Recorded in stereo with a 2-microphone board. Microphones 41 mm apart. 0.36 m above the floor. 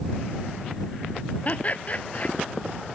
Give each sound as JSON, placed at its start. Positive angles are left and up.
{"t": 1.4, "sound": "laughter", "side_deg": 35}